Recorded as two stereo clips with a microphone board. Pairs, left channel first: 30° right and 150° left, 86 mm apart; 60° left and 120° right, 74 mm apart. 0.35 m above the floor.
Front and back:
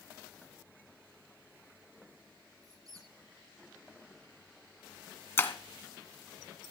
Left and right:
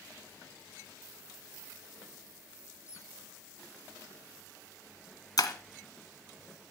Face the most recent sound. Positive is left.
turn(degrees=35)